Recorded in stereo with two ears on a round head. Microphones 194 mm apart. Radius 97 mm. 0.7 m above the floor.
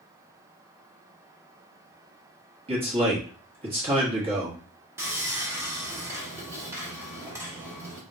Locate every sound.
2.7 s a man speaking: 25° right (ahead or behind), 1.0 m
5.0 s sawing: 10° right (ahead or behind), 0.9 m